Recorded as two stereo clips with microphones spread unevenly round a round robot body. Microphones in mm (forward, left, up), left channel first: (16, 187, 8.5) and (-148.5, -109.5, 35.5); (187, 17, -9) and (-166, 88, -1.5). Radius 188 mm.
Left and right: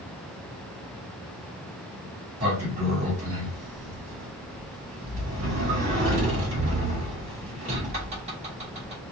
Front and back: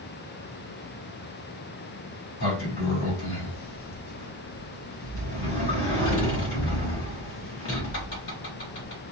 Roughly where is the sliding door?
Ahead right.